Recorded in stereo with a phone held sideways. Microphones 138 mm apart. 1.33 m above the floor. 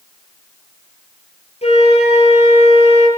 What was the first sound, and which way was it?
A flute, 50° left (ahead or behind).